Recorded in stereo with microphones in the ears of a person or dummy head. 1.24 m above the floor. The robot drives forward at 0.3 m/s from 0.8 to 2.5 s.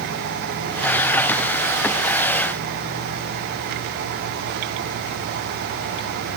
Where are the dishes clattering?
I don't hear dishes clattering.